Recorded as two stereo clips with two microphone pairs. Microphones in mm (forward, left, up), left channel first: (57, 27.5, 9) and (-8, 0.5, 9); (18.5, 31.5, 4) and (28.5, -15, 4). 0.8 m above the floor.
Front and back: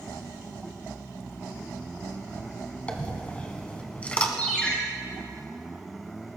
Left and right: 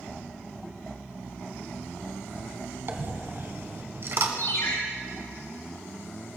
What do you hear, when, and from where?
2.9 s a dropped coin: 45° right, 1.7 m
4.4 s a ringtone: 95° left, 5.5 m